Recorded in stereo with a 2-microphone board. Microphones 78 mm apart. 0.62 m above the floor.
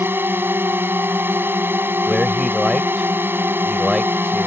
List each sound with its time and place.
0.0 s a drone: 30° right (ahead or behind)
2.1 s a man speaking: centre (ahead or behind)